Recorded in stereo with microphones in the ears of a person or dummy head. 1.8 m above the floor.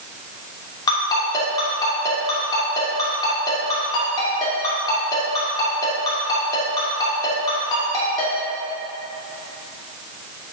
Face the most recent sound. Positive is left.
turn(degrees=25)  # may be behind; listen again after turning